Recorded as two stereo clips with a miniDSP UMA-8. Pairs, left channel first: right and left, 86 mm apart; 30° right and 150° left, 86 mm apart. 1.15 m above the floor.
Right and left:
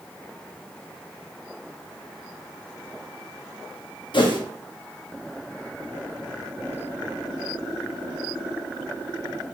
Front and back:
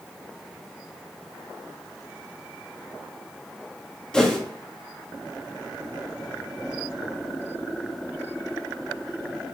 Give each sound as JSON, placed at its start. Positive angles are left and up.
{"t": 4.1, "sound": "a whoosh", "azimuth_deg": -110, "distance_m": 1.2}